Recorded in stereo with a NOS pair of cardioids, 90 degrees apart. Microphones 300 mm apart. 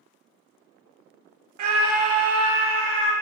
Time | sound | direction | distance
1.6 | a scream | 70° right | 0.7 m